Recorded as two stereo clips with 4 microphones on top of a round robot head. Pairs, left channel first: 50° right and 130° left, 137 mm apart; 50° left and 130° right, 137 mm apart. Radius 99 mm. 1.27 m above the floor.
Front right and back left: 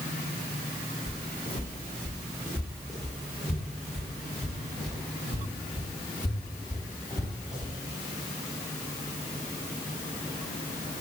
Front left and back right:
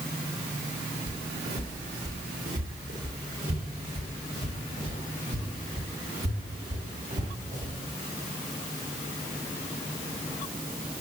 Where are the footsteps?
125° right, 4 m; by 7.7 s 145° right, 9.5 m.